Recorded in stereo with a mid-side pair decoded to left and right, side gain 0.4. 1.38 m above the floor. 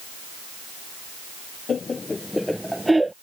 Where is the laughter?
50° left; by 3.1 s 20° right.